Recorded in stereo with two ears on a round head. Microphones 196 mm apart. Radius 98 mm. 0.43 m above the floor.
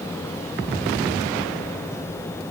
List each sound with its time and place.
Only background noise.